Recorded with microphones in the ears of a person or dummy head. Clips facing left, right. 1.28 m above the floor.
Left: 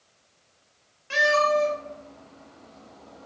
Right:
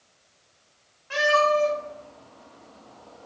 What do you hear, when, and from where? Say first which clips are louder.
1.1 s a cat meowing: right 1 dB; 35° left (ahead or behind), 1.1 m